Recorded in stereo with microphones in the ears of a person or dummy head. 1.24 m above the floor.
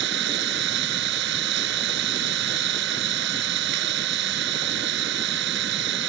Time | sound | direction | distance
0.0 | an engine running | 75° right (ahead or behind) | ?